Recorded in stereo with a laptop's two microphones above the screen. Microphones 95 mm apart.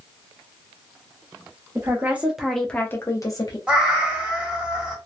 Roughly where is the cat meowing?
Centre.